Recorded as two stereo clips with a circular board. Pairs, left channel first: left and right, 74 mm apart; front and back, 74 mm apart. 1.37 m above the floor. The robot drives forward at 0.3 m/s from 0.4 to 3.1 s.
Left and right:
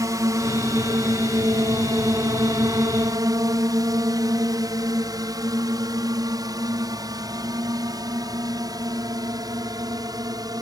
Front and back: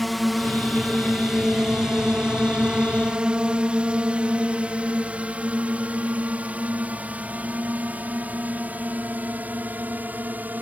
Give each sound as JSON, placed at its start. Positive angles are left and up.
{"t": 0.0, "sound": "a drone", "azimuth_deg": -90}